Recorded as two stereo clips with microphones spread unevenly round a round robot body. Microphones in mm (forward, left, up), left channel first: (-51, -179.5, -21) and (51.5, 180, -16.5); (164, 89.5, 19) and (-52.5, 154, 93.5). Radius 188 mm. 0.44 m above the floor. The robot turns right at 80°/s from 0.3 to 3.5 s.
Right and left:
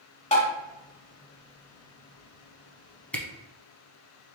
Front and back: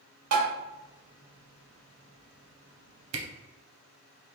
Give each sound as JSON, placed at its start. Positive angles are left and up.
{"t": 0.3, "sound": "tapping", "azimuth_deg": 180, "distance_m": 1.1}
{"t": 3.1, "sound": "a camera shutter", "azimuth_deg": 165, "distance_m": 0.7}